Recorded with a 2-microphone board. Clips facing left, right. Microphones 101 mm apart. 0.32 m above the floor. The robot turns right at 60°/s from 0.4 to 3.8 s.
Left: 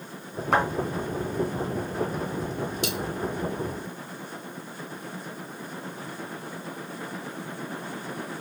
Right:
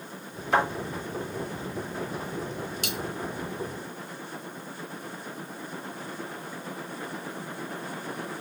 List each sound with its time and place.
0.5 s a thud: 75° left (ahead or behind), 1.5 m
2.8 s a dropped coin: 65° right (ahead or behind), 0.9 m; by 3.0 s 60° right (ahead or behind), 0.9 m